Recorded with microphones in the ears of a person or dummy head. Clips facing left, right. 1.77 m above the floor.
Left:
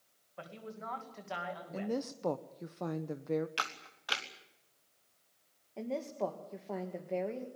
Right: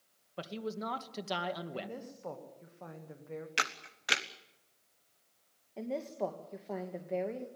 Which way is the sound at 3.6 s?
25° right (ahead or behind).